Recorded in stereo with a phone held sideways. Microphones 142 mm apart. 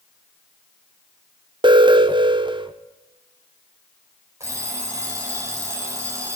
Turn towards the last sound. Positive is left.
turn(degrees=-20)  # may be behind; listen again after turning